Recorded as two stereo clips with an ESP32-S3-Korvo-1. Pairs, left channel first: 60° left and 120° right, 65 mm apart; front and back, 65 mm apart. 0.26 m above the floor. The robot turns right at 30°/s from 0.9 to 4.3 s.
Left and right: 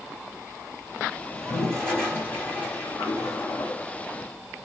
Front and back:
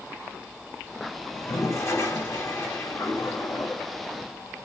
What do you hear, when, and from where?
1.3 s a toilet flushing: 25° right, 2 m; by 4.0 s 55° left, 2 m